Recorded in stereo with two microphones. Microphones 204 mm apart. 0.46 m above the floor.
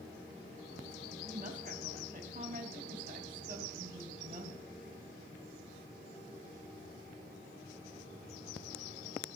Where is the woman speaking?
45° right (ahead or behind), 3.5 m.